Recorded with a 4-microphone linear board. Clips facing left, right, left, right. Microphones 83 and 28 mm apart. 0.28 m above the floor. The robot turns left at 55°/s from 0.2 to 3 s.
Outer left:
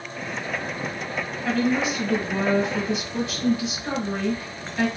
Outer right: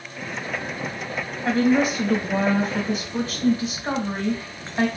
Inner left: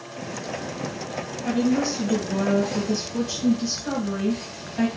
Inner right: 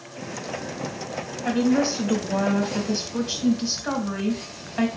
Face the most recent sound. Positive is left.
turn(degrees=-130)